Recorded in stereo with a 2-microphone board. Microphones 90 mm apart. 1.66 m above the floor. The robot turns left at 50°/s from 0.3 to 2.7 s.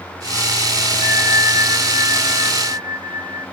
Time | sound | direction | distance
1.0 | a bell | 160° left | 5 m